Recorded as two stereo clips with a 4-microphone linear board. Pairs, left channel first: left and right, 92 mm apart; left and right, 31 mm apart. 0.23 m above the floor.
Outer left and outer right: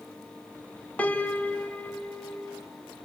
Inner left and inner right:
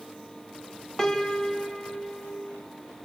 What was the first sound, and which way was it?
A piano, 15° left (ahead or behind).